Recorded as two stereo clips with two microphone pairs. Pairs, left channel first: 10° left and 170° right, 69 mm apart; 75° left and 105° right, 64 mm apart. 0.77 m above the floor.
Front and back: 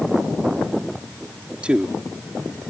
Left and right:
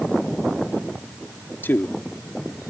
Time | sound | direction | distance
1.6 | a man speaking | 120° left | ?